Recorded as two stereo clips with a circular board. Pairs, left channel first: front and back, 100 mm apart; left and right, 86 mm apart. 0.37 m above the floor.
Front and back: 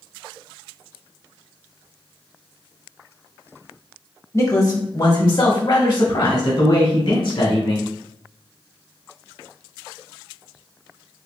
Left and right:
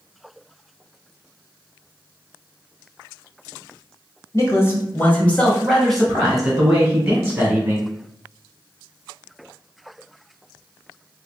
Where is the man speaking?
50° left, 1.3 m; by 7.9 s 15° right, 3 m.